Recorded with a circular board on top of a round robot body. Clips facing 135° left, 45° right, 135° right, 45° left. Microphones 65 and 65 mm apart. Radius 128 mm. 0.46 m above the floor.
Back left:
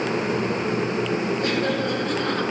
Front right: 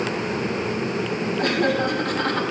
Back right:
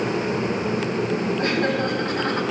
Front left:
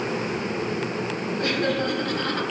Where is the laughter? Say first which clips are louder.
Front right 2 dB, front left 1 dB; 75° right, 4 m; by 2.4 s 70° right, 4.5 m.